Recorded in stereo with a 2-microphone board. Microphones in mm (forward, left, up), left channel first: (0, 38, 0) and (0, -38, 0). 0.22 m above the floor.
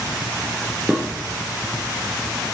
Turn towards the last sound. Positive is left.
turn(degrees=-15)  # may be behind; listen again after turning